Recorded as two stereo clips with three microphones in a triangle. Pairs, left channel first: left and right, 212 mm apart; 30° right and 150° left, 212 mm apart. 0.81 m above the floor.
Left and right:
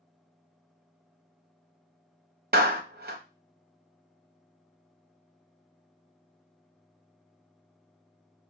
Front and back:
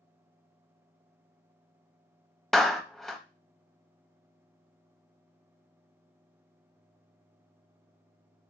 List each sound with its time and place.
2.5 s a clap: 120° right, 0.5 m